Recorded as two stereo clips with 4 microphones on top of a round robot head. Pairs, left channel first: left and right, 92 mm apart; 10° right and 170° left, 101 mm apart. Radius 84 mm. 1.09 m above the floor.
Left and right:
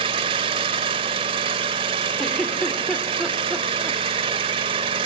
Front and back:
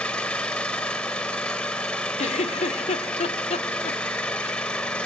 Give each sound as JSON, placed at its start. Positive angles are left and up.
{"t": 0.0, "sound": "an engine running", "azimuth_deg": -90, "distance_m": 1.0}
{"t": 2.2, "sound": "a giggle", "azimuth_deg": 5, "distance_m": 2.0}